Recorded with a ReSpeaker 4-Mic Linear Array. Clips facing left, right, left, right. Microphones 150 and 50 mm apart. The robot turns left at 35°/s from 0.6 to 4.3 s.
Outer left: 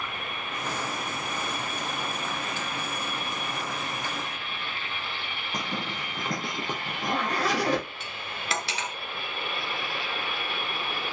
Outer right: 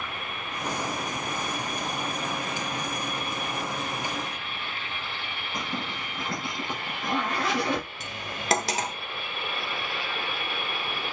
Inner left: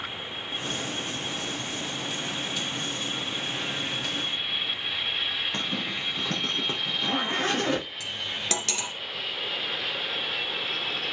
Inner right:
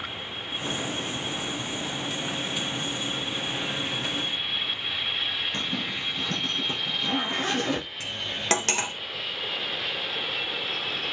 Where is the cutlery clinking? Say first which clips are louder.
Outer right 2 dB, inner right 1 dB; 40° right (ahead or behind), 0.9 m.